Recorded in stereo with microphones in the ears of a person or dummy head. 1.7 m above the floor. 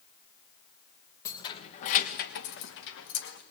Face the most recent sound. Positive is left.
turn(degrees=75)  # may be behind; listen again after turning